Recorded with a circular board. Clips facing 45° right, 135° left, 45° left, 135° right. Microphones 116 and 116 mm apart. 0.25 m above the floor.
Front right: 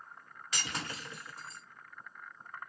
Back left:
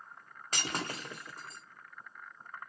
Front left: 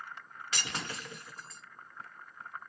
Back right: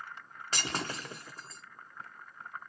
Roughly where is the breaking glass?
Behind.